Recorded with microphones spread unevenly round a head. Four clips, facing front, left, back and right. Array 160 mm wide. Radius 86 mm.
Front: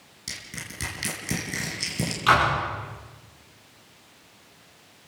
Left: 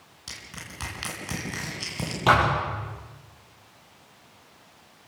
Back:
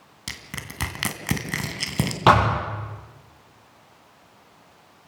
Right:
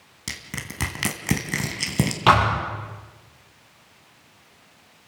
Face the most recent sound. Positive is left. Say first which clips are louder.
# right 2 dB, back 4 dB
turn(degrees=-175)